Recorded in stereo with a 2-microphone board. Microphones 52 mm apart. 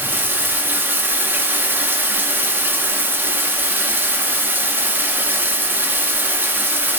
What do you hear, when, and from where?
0.0 s running water: 40° right (ahead or behind), 0.8 m